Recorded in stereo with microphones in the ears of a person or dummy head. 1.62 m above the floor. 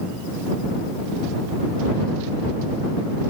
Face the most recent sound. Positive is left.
No sound to turn to.